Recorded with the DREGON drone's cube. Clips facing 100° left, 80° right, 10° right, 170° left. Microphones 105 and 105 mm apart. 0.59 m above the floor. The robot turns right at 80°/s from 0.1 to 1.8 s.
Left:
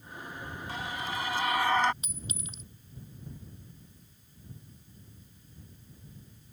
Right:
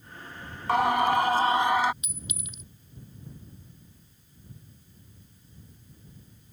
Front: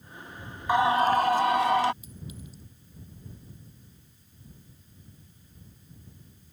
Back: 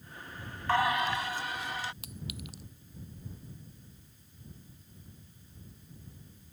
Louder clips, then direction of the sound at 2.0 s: Even, even; 155° left.